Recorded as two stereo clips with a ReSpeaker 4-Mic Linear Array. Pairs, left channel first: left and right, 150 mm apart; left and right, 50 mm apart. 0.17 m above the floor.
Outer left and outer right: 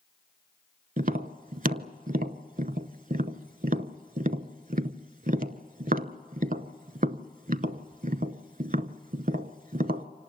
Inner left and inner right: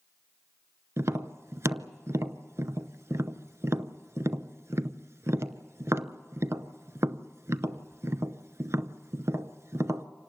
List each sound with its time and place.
1.0 s tapping: 65° right (ahead or behind), 0.7 m